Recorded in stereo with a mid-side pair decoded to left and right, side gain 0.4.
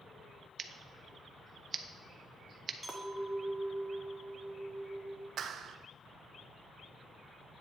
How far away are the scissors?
About 0.8 m.